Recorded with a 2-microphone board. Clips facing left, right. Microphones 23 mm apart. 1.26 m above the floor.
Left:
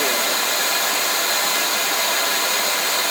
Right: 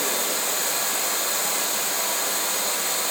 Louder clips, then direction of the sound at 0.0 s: Left 6 dB; 80° left.